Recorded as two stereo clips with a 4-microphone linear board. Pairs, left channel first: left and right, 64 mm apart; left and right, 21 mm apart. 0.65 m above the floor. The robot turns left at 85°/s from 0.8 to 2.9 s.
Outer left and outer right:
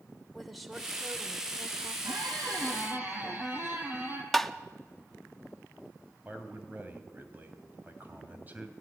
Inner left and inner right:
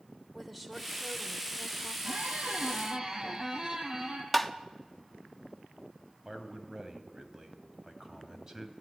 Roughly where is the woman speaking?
Ahead.